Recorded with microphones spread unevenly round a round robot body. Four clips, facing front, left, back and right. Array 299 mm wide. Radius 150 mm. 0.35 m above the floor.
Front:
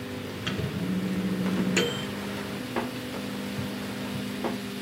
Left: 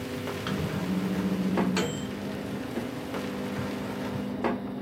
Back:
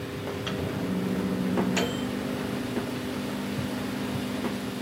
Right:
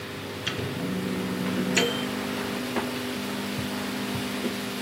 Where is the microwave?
10° right, 3.5 m.